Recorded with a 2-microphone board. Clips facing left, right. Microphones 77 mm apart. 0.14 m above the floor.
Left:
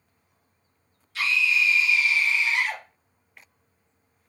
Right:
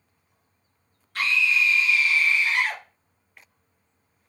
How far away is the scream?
About 1.9 m.